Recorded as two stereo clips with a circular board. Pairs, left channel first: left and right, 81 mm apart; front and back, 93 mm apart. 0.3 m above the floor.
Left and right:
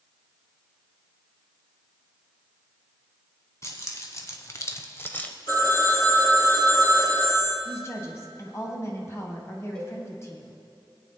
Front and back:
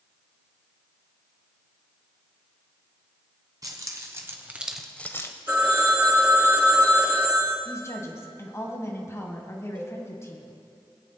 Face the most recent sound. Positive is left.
turn(degrees=165)